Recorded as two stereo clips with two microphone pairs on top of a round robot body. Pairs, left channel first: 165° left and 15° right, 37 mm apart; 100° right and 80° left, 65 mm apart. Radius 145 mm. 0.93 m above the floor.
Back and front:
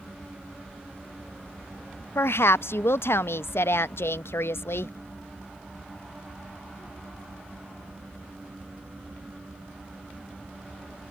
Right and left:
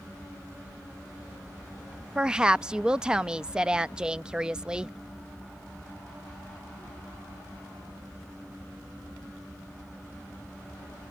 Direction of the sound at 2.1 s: 160° left.